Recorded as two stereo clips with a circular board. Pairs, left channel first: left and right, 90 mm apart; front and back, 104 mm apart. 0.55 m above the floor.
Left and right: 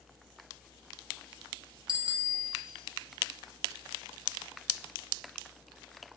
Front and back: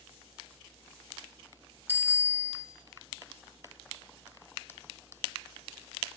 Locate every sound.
1.9 s a bicycle bell: 110° right, 2 m